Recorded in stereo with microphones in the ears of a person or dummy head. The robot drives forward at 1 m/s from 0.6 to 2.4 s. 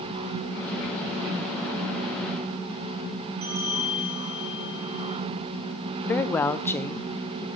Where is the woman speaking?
20° left (ahead or behind), 0.5 m.